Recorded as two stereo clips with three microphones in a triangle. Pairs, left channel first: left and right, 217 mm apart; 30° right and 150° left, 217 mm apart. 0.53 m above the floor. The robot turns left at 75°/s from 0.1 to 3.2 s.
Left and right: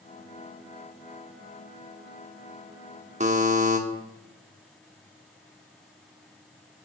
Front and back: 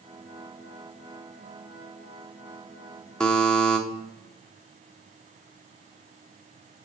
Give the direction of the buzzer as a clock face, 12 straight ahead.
4 o'clock.